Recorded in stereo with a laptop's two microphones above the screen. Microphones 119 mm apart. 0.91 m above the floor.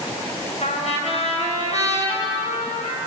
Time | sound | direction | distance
0.6 | a trumpet | 65° left (ahead or behind) | 6 m